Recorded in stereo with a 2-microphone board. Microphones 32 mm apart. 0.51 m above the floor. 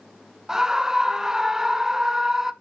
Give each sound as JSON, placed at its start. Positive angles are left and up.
{"t": 0.5, "sound": "a scream", "side_deg": -15, "distance_m": 0.8}